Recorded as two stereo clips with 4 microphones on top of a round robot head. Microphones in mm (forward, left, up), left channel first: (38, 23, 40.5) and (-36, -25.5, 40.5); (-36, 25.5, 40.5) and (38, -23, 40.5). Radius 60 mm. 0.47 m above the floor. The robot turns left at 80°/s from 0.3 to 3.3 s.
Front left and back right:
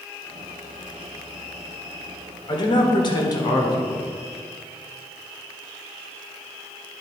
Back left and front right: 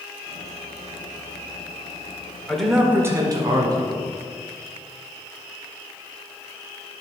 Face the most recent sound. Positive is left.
turn(degrees=5)